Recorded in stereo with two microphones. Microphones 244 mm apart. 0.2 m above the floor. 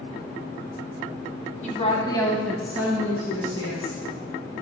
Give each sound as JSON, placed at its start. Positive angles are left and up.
{"t": 1.6, "sound": "a woman speaking", "side_deg": 30, "distance_m": 1.3}